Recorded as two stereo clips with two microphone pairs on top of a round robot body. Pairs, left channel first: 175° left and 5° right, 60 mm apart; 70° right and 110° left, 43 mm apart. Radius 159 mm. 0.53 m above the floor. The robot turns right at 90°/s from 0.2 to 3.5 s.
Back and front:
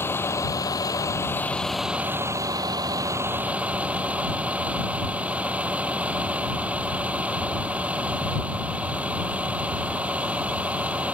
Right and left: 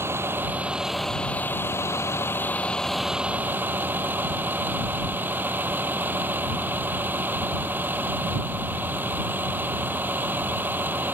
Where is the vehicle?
125° left; by 11.1 s 65° left.